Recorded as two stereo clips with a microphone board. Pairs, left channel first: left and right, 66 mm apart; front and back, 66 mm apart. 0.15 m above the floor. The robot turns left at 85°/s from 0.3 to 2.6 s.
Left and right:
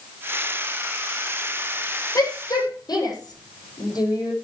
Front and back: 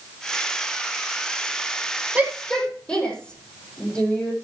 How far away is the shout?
About 7 m.